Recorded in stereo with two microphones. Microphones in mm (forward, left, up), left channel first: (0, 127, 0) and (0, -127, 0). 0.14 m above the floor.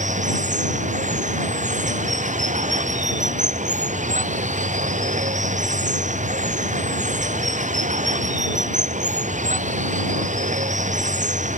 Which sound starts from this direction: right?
Running water, at 0.0 s.